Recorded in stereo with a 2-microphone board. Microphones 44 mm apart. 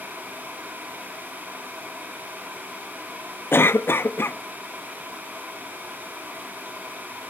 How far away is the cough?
About 0.6 m.